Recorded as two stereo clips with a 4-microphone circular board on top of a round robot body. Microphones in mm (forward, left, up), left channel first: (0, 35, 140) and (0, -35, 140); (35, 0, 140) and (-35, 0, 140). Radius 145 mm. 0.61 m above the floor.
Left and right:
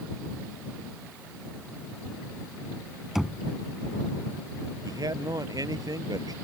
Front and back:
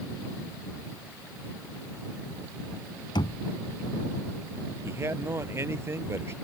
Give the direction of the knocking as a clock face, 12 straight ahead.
12 o'clock.